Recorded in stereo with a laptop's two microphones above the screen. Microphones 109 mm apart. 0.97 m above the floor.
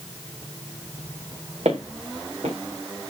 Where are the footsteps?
70° right (ahead or behind), 3 m.